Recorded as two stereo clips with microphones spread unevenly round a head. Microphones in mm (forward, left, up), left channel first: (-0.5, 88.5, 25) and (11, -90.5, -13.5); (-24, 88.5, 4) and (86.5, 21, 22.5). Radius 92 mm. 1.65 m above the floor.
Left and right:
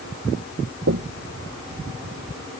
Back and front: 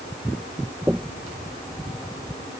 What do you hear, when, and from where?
0.9 s knocking: 110° right